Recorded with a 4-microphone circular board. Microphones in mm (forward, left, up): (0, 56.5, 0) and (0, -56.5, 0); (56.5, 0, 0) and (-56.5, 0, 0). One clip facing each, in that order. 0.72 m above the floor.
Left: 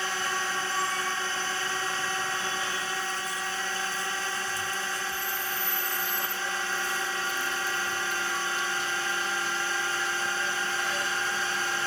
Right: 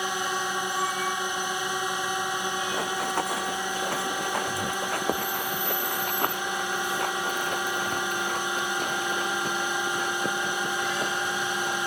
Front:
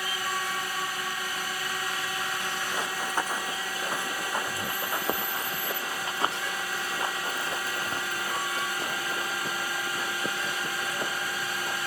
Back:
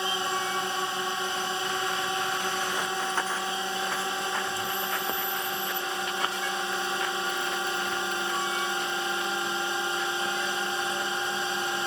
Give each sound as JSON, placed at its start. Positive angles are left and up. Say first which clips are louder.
{"t": 0.0, "sound": "a drone", "louder": "right 2 dB, back 3 dB", "azimuth_deg": -145}
{"t": 2.7, "sound": "running footsteps", "louder": "right 6 dB, back 1 dB", "azimuth_deg": -80}